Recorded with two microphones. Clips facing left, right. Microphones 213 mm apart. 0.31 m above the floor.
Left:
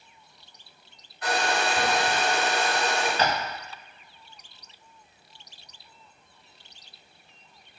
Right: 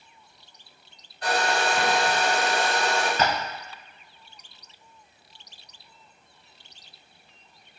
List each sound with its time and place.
1.2 s a hair dryer: 40° right (ahead or behind), 1.6 m
3.2 s tapping: 50° right (ahead or behind), 0.7 m